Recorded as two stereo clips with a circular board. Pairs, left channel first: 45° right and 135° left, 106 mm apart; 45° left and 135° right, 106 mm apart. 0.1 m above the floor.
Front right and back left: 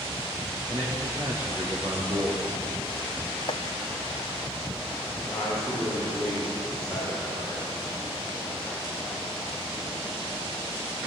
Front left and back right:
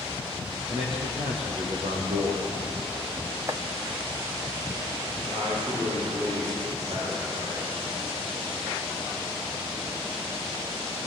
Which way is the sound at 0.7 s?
160° right.